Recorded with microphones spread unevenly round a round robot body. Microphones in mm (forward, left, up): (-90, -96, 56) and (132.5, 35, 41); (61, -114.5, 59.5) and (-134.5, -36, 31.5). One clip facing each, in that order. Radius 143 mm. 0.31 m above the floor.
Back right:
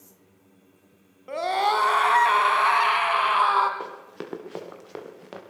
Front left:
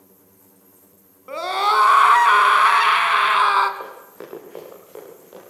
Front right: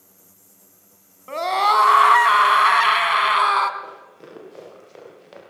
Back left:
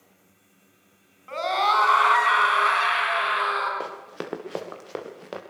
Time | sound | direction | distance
1.3 | a scream | 50° right | 3 m
3.8 | running footsteps | 155° left | 4.5 m